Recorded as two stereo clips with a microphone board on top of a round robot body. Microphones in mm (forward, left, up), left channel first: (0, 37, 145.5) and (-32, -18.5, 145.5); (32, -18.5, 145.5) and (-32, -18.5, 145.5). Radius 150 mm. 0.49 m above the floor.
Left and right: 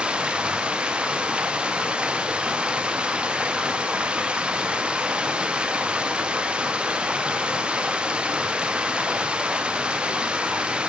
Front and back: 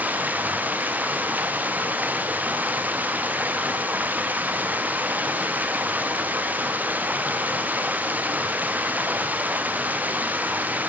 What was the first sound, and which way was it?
Running water, 170° right.